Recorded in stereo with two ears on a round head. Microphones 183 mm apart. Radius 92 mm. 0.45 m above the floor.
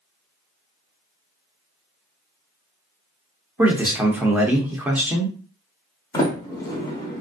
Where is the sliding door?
15° left (ahead or behind), 0.9 m.